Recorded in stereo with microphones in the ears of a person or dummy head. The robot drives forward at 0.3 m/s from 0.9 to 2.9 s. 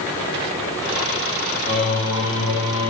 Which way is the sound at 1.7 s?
65° left (ahead or behind).